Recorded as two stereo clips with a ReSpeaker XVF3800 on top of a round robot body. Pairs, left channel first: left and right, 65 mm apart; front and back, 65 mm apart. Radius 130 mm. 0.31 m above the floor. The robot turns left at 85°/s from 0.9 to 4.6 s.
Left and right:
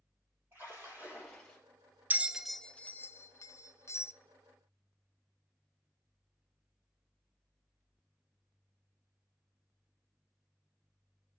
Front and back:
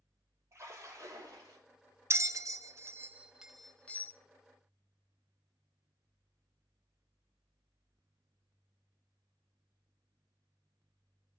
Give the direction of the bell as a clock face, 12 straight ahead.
5 o'clock.